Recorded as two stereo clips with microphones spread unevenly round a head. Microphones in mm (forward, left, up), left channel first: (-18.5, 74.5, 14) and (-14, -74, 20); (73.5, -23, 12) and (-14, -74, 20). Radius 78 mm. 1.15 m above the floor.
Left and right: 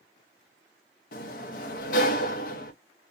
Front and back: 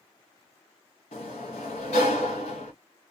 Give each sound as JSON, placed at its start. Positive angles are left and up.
{"t": 1.1, "sound": "a sliding door", "azimuth_deg": 60, "distance_m": 0.6}